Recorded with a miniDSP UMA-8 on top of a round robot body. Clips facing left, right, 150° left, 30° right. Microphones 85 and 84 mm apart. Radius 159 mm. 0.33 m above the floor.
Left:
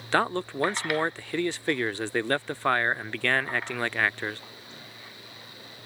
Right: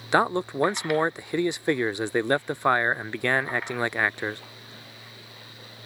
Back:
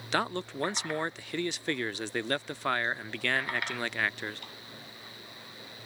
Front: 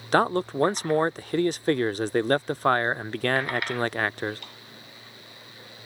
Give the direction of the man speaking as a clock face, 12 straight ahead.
1 o'clock.